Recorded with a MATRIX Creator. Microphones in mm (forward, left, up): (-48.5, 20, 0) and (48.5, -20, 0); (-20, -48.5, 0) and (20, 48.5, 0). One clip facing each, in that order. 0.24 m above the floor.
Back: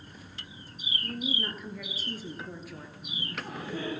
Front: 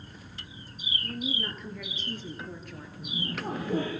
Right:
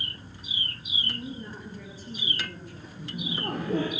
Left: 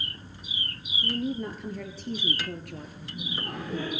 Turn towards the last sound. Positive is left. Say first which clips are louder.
# front 6 dB, right 7 dB
turn(degrees=-75)